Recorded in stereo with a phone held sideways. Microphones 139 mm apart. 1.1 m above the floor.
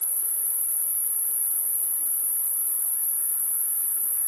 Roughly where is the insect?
Left.